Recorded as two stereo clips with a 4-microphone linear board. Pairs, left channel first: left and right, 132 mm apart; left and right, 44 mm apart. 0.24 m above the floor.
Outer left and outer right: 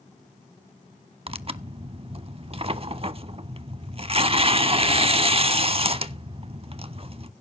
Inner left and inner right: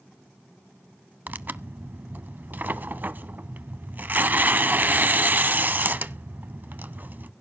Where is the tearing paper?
45° right (ahead or behind), 0.5 m.